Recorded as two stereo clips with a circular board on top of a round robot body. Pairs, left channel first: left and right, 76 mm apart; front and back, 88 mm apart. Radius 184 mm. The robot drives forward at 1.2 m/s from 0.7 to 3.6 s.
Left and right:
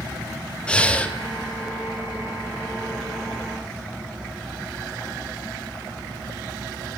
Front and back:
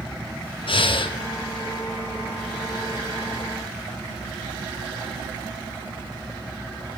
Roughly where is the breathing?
Ahead.